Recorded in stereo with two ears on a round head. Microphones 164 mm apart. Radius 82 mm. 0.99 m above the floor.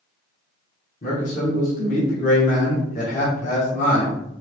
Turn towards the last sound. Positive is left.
turn(degrees=40)  # may be behind; listen again after turning